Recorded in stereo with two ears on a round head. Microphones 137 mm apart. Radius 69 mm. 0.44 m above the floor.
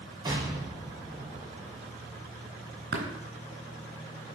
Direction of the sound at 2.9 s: 80° right.